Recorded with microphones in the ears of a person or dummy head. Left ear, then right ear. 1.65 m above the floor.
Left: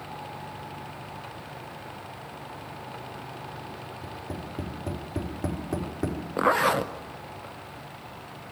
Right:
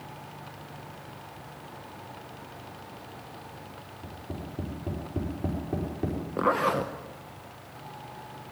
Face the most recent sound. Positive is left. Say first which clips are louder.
# left 3 dB
turn(degrees=25)  # may be behind; listen again after turning